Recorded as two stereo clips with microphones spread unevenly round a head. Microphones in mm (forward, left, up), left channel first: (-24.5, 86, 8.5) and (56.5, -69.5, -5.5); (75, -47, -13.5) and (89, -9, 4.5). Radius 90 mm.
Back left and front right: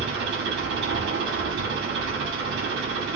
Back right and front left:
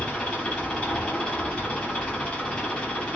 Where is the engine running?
50° right, 6.5 m.